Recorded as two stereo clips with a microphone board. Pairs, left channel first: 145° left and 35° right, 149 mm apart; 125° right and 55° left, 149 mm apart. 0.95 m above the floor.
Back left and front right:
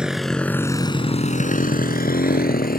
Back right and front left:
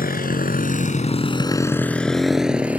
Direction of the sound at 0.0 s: 120° right.